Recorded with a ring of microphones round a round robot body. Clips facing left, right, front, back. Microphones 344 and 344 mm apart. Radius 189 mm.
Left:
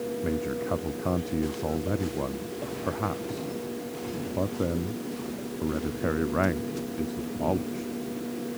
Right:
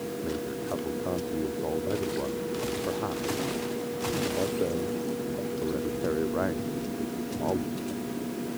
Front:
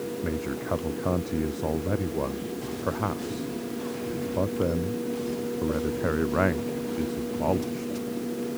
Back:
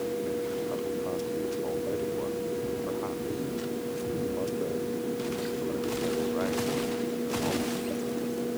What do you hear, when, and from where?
0.2 s a man speaking: 35° left